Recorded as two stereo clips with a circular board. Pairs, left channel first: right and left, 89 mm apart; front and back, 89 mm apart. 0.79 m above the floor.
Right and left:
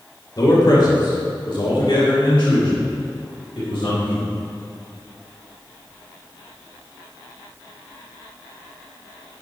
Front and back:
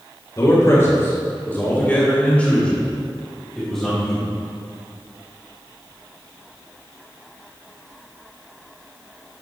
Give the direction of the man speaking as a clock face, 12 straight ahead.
2 o'clock.